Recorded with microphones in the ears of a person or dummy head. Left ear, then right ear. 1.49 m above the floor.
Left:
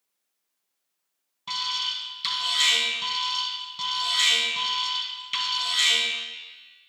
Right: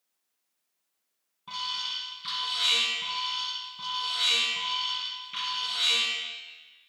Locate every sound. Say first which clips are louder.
1.5 s an alarm: left 5 dB; 70° left (ahead or behind), 3 m